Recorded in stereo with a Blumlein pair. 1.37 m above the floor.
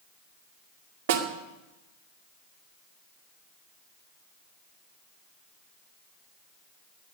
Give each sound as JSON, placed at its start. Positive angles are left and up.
{"t": 1.1, "sound": "a snare drum", "azimuth_deg": -55, "distance_m": 2.0}